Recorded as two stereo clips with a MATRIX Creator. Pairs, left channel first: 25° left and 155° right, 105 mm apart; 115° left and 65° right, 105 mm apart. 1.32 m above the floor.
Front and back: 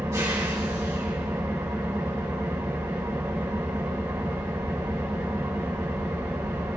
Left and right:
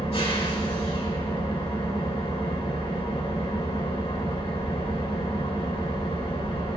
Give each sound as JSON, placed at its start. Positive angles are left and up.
{"t": 0.0, "sound": "an engine running", "azimuth_deg": 140, "distance_m": 2.5}